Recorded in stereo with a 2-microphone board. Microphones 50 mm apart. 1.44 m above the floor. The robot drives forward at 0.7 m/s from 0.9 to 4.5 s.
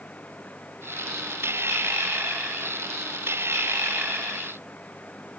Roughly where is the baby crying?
No baby crying in this recording.